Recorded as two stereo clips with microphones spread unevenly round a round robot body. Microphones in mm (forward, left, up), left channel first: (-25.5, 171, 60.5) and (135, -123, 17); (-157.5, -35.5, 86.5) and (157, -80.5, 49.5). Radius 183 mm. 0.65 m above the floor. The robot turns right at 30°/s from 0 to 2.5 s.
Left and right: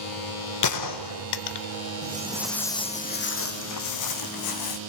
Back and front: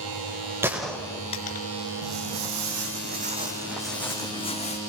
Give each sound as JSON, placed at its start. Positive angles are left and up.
{"t": 0.6, "sound": "a gunshot", "azimuth_deg": 75, "distance_m": 1.0}
{"t": 2.0, "sound": "footsteps", "azimuth_deg": 0, "distance_m": 1.5}